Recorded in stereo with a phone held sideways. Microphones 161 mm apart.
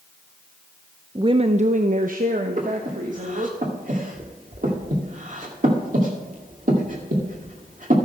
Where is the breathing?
55° right (ahead or behind), 2 m.